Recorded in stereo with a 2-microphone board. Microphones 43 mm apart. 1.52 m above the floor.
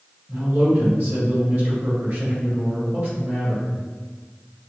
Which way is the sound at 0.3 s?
65° right (ahead or behind).